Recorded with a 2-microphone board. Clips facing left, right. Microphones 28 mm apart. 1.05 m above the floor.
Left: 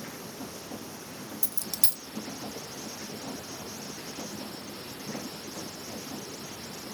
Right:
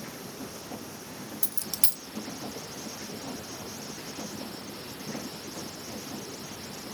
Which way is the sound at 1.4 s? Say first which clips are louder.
Right 1 dB; 35° right (ahead or behind).